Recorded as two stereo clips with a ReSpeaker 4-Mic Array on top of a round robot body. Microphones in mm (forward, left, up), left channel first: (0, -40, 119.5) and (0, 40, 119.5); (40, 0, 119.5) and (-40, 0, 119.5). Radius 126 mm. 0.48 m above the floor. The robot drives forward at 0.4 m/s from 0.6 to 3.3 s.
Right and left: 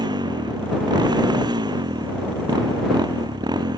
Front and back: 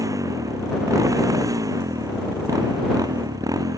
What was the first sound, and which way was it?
A motorcycle, 130° left.